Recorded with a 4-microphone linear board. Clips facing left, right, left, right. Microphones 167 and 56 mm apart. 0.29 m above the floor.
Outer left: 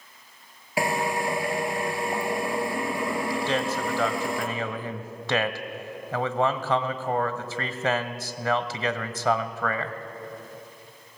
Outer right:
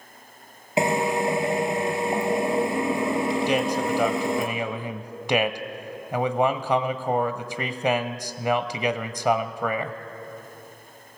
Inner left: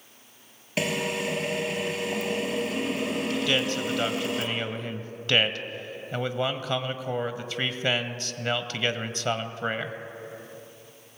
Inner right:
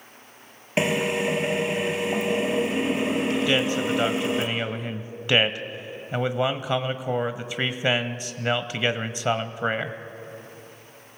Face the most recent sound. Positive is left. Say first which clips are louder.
# outer right 4 dB, inner right 3 dB
turn(degrees=-15)  # may be behind; listen again after turning